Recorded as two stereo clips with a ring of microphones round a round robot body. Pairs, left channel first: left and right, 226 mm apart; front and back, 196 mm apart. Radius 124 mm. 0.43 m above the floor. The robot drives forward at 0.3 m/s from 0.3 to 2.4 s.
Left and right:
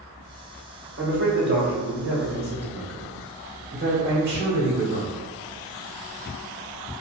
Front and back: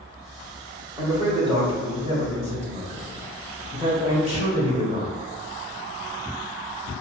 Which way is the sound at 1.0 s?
110° right.